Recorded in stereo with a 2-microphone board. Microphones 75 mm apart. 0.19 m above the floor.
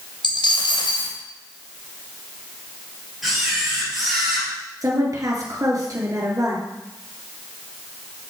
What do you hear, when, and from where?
0.2 s a dropped coin: 85° left, 2 m
3.2 s a camera shutter: 5° right (ahead or behind), 3.5 m
4.8 s a woman speaking: 50° right (ahead or behind), 2.5 m